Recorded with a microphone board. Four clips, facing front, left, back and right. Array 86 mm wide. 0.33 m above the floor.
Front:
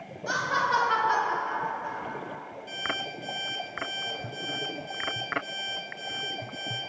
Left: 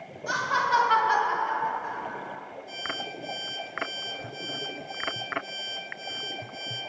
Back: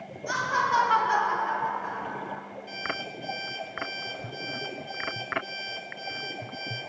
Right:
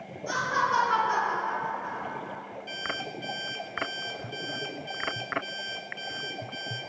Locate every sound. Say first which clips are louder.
0.3 s laughter: left 2 dB, back 1 dB; 35° left, 2 m; by 2.4 s 160° left, 1.9 m
2.7 s an alarm clock: right 1 dB, front 1 dB; 75° right, 2 m